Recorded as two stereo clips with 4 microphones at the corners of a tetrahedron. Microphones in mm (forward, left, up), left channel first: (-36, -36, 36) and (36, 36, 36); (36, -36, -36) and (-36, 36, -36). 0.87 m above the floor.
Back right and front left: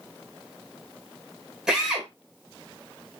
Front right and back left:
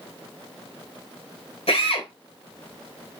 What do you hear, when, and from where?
1.7 s a drill: 40° right, 4.5 m